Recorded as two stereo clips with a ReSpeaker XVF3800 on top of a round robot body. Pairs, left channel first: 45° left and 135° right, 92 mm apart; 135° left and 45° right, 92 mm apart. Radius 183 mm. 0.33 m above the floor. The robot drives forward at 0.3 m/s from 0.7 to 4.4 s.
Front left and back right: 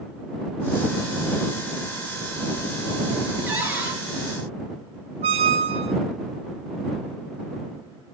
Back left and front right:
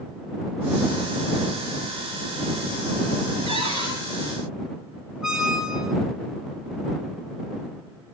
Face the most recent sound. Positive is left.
turn(degrees=-130)